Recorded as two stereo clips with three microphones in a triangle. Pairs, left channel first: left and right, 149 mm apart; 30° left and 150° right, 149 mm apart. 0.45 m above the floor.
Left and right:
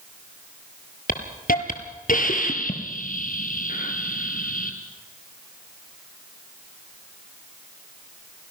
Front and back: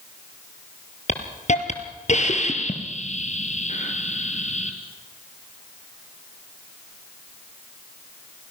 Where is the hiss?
70° left, 2.5 m.